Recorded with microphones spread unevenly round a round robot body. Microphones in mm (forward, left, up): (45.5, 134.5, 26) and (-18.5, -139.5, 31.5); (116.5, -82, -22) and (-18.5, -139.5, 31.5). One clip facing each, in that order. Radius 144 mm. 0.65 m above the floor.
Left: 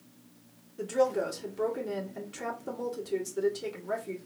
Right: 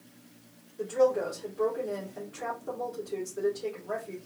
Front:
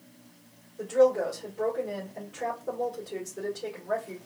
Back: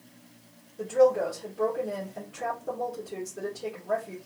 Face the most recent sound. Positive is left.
turn(degrees=105)